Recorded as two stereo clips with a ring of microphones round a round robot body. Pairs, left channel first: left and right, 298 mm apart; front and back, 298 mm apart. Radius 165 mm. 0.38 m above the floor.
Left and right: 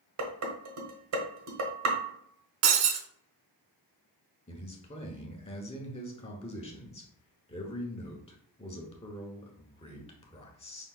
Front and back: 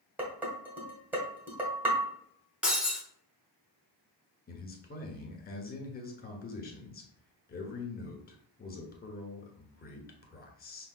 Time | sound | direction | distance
0.2 | dishes clattering | 95° right | 1.1 m
2.6 | breaking glass | 95° right | 0.8 m
4.5 | a man speaking | 35° left | 1.3 m